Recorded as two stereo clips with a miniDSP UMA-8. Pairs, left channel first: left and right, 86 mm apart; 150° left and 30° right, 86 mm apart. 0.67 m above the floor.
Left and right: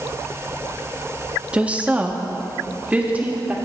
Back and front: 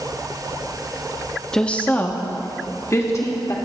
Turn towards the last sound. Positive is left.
turn(degrees=-160)